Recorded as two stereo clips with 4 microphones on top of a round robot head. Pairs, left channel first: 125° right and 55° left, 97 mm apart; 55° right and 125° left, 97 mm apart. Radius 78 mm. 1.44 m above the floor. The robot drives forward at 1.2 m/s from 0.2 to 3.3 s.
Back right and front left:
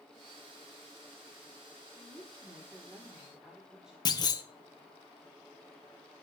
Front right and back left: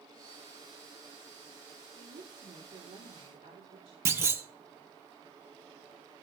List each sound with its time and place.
1.9 s a woman speaking: 115° left, 3.5 m; by 4.0 s 135° left, 4 m
4.0 s a clunk: 170° right, 1.5 m